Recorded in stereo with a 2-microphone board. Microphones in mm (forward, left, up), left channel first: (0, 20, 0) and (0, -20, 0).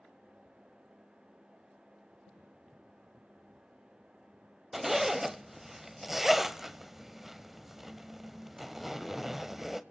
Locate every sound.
4.7 s a zipper: 10° right (ahead or behind), 0.5 m